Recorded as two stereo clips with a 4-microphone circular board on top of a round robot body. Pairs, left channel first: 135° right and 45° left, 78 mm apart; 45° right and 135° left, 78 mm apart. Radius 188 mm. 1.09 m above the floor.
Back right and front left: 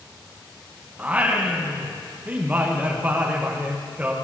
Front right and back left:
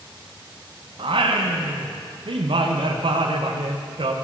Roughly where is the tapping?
No tapping in this recording.